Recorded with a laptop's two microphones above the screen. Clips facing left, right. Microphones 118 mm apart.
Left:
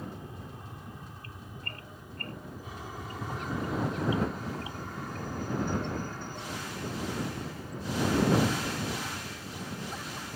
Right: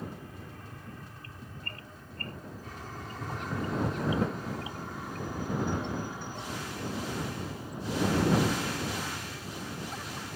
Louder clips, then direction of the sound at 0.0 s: Even; 20° left (ahead or behind).